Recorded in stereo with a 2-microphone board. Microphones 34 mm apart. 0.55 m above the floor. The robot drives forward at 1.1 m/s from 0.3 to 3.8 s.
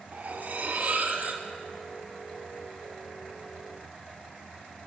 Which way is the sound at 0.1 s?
50° right (ahead or behind).